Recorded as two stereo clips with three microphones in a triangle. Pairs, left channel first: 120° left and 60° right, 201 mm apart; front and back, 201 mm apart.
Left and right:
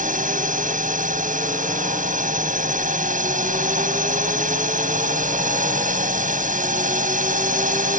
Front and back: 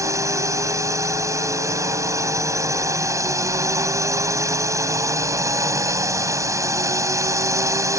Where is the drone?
105° right.